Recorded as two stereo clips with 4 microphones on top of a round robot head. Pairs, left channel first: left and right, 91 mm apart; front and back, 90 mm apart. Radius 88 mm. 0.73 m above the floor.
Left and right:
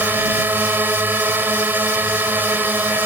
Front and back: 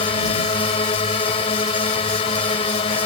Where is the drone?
20° right.